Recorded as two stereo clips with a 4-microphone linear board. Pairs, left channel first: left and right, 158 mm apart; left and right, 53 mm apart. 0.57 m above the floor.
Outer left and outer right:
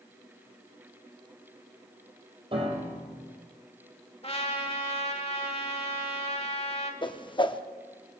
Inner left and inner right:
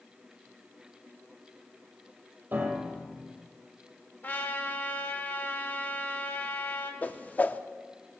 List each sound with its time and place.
2.5 s a piano: 35° right (ahead or behind), 3.5 m
4.2 s a trumpet: 40° left (ahead or behind), 1.2 m
7.0 s a whoosh: 30° left (ahead or behind), 0.5 m